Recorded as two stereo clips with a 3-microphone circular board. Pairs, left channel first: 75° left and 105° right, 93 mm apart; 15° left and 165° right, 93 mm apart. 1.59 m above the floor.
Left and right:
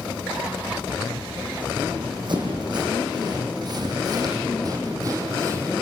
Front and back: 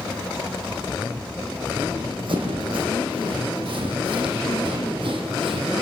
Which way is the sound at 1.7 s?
140° right.